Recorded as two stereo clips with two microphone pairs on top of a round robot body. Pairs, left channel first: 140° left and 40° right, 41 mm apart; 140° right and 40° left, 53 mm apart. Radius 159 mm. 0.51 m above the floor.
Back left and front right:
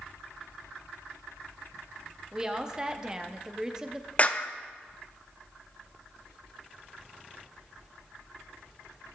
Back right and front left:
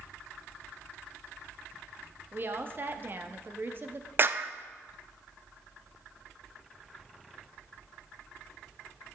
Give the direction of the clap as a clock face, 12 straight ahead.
9 o'clock.